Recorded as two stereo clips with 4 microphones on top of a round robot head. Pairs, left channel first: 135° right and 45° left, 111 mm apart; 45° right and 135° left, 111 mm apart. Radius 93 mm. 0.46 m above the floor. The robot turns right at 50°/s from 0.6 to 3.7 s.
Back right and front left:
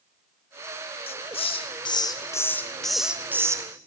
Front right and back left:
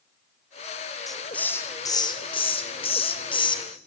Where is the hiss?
135° right, 2.5 m; by 3.6 s 10° right, 2.5 m.